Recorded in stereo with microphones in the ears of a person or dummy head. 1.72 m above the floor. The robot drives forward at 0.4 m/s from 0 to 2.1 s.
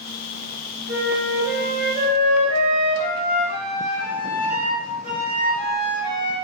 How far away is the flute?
About 0.6 m.